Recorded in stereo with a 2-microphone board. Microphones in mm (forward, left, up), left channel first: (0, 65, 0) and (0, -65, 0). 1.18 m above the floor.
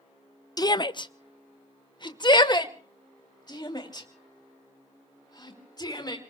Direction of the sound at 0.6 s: 30° left (ahead or behind).